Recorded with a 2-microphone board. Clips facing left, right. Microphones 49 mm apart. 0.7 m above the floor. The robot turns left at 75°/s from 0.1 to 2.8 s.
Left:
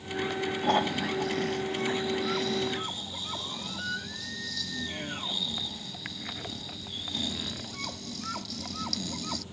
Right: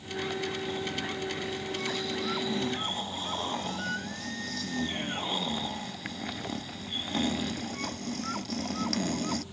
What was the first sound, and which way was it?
Snoring, 125° left.